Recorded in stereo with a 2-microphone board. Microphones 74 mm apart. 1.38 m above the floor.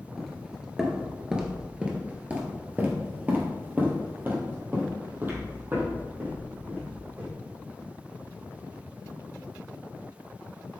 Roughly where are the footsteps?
Centre.